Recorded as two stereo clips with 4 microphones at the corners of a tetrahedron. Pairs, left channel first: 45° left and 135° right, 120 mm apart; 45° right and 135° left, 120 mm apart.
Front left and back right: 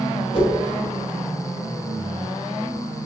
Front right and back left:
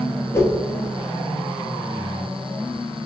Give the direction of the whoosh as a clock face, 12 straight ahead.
11 o'clock.